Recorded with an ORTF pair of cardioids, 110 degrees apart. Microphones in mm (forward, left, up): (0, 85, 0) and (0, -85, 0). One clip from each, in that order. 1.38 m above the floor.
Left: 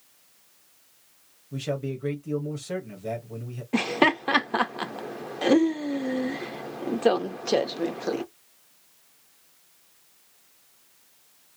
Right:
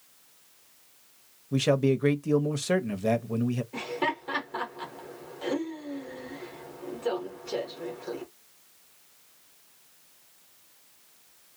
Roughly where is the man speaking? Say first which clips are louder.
Right 7 dB; ahead right.